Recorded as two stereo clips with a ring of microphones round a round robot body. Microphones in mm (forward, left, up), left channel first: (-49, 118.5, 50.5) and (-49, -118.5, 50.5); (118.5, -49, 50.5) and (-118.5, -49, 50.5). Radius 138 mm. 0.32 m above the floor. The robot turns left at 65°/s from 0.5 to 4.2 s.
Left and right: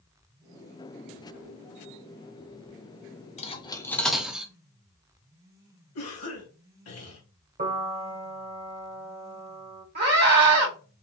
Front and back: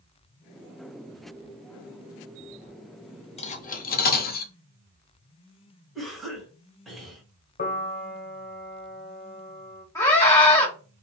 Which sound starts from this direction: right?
A scream, at 9.9 s.